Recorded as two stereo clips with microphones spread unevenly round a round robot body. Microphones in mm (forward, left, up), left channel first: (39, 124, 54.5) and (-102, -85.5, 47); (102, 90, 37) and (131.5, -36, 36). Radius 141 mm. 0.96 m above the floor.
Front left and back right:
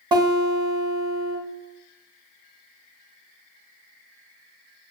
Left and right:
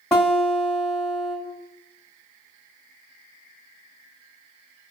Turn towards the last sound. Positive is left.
turn(degrees=180)